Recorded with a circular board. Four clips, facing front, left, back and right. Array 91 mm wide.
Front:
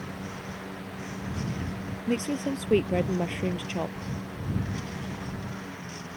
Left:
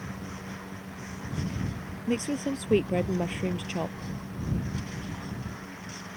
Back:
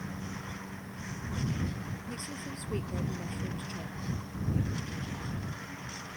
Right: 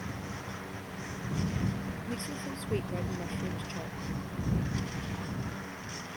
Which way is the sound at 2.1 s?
35° left.